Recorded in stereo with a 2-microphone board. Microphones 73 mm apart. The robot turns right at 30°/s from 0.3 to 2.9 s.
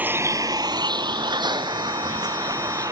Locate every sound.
0.0 s a vehicle: 20° right (ahead or behind); by 2.9 s 50° right (ahead or behind)